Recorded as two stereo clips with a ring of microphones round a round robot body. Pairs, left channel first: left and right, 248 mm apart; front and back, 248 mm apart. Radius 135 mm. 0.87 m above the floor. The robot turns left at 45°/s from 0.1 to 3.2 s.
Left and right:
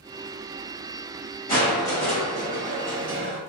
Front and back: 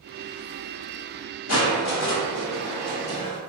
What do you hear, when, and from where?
1.5 s crushing: 30° left, 1.1 m; by 3.4 s 45° right, 1.1 m